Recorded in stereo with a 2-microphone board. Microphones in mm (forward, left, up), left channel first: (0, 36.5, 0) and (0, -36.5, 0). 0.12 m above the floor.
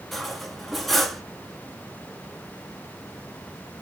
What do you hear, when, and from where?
0.1 s cutlery clinking: centre (ahead or behind), 0.9 m